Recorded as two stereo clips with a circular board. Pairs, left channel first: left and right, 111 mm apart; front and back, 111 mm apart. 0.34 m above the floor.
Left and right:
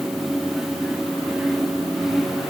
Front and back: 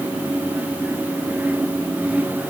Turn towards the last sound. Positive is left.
No sound to turn to.